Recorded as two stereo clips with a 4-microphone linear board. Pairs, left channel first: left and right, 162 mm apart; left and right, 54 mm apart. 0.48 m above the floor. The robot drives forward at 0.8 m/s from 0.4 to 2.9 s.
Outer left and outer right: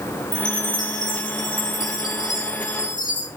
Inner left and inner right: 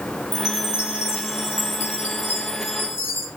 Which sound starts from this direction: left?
A chime, at 0.3 s.